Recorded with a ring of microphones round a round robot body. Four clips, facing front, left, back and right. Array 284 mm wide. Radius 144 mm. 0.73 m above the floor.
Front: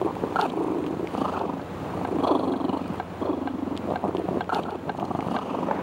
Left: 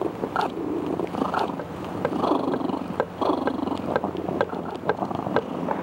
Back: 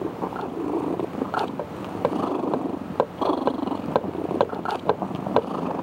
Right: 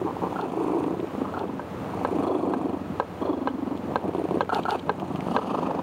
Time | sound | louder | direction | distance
1.6 | hammering | left 1 dB, back 4 dB | 155° left | ?